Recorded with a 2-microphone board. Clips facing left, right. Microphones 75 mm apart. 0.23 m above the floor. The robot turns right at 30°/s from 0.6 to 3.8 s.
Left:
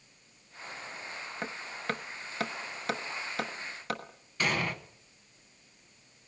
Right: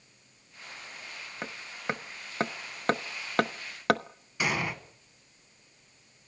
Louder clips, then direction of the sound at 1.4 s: Right 1 dB; 5° right (ahead or behind).